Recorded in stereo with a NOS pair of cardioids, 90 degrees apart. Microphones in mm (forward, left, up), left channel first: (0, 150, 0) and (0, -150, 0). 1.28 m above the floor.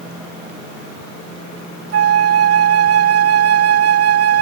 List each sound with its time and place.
1.9 s a flute: 55° right